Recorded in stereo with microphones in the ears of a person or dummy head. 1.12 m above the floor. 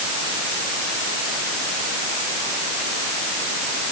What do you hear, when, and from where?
Only background noise.